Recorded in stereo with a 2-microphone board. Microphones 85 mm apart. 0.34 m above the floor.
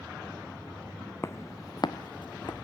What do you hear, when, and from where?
1.2 s footsteps: 30° left (ahead or behind), 0.8 m; by 2.6 s 60° left (ahead or behind), 0.8 m